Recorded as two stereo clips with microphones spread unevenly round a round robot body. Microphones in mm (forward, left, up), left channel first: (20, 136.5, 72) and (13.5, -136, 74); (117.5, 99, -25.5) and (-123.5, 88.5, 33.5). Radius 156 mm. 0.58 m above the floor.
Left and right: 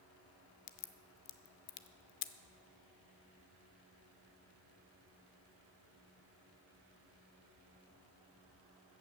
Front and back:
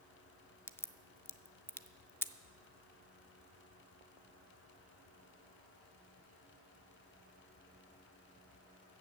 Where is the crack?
85° left, 0.6 m.